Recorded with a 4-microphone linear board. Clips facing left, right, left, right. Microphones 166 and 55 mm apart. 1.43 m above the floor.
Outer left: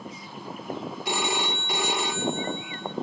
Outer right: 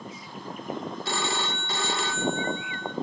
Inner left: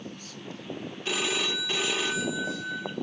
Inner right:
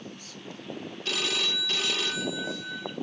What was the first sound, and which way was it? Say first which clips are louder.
A phone ringing: outer left 3 dB, inner left 2 dB; 15° left (ahead or behind).